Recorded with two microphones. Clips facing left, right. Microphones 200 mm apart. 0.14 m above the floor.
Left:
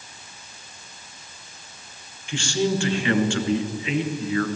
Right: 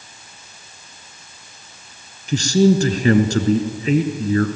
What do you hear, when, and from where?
2.3 s a man speaking: 40° right (ahead or behind), 2 m